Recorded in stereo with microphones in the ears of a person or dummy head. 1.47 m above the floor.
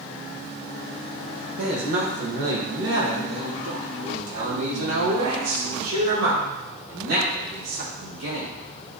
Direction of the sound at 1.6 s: 55° right (ahead or behind).